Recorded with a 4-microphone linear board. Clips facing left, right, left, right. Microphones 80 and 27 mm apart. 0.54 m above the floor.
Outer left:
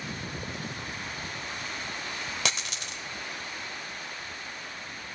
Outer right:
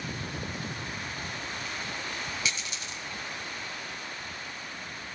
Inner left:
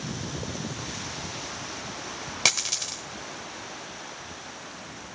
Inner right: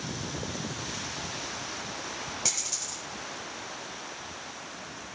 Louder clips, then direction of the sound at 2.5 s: Outer left 2 dB, inner left 12 dB; 75° left (ahead or behind).